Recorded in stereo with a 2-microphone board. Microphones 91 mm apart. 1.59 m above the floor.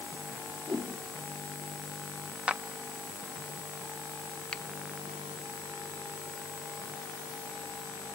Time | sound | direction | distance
0.7 | a whoosh | 65° right (ahead or behind) | 4.5 m
2.5 | a clap | 15° right (ahead or behind) | 0.8 m
4.5 | a finger snap | 10° left (ahead or behind) | 0.5 m